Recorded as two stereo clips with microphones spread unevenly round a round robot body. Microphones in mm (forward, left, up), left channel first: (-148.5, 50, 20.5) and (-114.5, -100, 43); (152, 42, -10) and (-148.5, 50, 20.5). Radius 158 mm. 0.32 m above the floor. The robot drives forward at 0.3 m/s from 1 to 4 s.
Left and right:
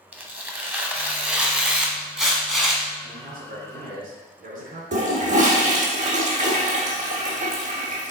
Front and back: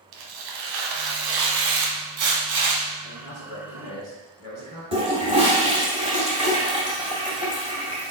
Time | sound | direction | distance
0.1 | tearing paper | 160° right | 1.3 m
3.0 | a man speaking | 105° right | 3 m
4.9 | a toilet flushing | 105° right | 1.6 m